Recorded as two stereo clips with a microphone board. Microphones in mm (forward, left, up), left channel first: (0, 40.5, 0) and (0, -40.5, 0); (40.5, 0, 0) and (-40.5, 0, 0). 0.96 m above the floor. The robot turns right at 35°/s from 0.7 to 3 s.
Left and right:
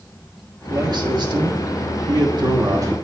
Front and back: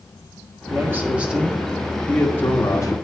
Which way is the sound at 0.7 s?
125° right.